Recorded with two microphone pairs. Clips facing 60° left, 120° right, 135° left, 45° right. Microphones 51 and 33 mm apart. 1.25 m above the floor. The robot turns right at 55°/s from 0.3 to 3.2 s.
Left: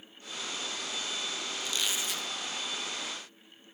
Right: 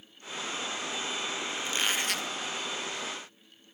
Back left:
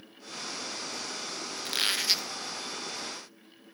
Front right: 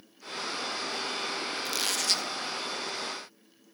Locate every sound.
1.6 s a squeak: 175° right, 0.6 m; by 2.3 s 140° right, 0.6 m